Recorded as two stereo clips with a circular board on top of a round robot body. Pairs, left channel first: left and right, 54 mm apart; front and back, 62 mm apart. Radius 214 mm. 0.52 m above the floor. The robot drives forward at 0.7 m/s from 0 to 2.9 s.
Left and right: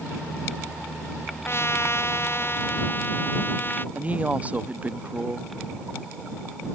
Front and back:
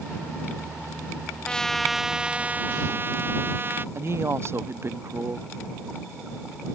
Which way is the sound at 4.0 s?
145° right.